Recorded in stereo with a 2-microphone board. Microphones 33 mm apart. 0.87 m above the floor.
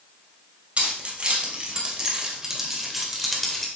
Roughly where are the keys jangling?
Right.